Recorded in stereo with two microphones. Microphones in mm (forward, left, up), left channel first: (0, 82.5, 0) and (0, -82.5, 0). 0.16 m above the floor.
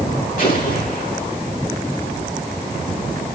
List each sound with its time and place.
0.4 s an explosion: 55° left (ahead or behind), 6 m